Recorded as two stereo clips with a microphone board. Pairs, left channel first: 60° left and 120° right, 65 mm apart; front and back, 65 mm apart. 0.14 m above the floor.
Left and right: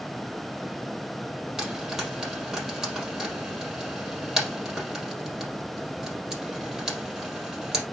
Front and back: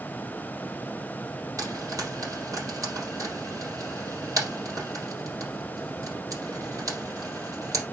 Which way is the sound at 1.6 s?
155° left.